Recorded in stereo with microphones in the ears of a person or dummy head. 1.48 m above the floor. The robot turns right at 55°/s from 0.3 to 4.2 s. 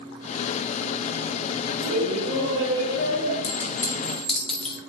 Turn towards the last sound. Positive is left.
turn(degrees=5)  # may be behind; listen again after turning